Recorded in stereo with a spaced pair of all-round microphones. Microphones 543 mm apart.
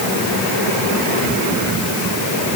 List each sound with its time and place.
Only background noise.